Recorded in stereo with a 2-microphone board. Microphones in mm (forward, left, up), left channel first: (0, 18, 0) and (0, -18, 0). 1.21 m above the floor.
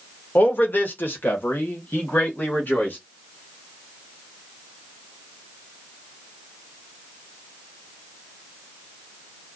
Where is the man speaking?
65° left (ahead or behind), 1.0 m; by 3.0 s 60° left (ahead or behind), 1.8 m.